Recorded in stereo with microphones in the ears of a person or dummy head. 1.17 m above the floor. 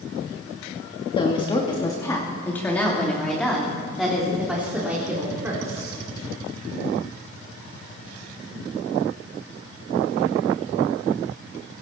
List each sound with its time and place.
1.1 s a woman speaking: 30° left (ahead or behind), 2.5 m; by 6.0 s 10° right (ahead or behind), 4 m